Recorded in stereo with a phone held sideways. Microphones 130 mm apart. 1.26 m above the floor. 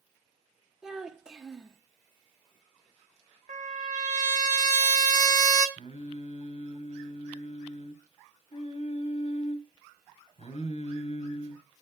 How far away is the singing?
About 1.3 m.